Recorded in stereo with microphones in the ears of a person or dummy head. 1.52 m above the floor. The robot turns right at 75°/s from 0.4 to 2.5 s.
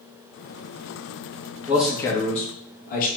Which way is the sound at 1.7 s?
15° right.